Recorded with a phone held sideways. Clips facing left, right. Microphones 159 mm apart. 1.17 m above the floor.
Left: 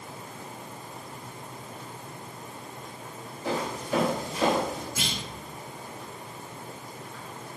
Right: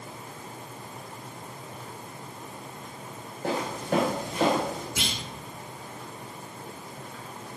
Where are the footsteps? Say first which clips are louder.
Right 1 dB; 60° right (ahead or behind), 4.5 m; by 4.9 s 55° right (ahead or behind), 4 m.